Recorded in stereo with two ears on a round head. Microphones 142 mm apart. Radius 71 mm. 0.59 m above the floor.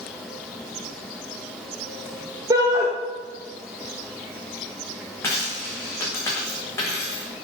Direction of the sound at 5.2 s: 15° left (ahead or behind).